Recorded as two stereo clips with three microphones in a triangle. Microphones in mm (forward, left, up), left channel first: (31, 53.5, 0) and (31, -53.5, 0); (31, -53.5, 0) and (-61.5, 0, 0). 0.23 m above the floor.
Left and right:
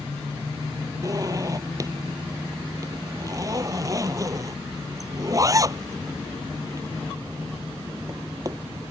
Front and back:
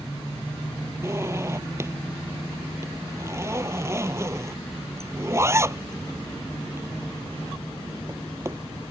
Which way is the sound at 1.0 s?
145° right.